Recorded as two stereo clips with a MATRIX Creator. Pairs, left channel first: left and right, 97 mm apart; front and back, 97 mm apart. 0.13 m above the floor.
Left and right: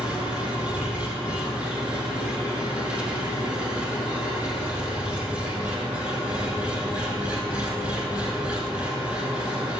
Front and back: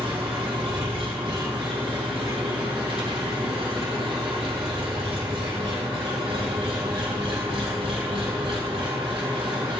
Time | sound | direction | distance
0.0 | an engine running | 165° right | 4.5 m